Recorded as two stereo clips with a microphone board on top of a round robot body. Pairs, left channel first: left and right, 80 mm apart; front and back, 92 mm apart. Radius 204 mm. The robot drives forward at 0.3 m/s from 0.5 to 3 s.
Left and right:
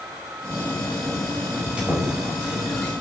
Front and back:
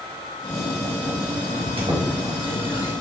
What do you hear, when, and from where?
1.5 s a squeak: 165° right, 1.7 m; by 2.9 s 170° right, 2 m